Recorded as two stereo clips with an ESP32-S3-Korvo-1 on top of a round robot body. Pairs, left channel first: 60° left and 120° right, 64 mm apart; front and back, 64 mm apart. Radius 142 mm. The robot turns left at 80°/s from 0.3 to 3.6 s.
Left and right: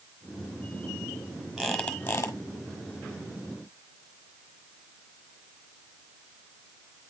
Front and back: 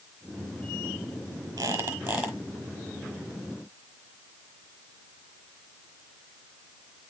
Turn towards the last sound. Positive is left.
turn(degrees=0)